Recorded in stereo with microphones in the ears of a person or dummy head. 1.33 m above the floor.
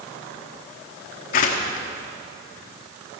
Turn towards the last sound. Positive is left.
turn(degrees=50)  # may be behind; listen again after turning